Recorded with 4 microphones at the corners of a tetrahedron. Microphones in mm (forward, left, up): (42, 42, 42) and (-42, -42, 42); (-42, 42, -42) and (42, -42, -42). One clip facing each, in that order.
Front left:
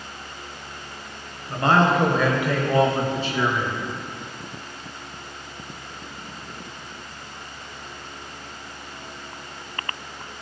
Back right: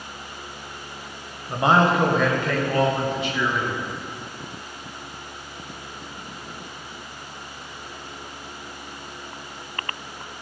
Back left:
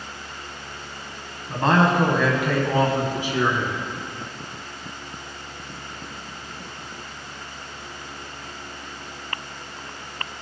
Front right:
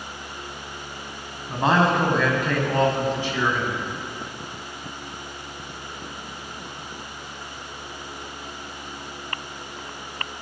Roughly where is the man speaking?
Behind right.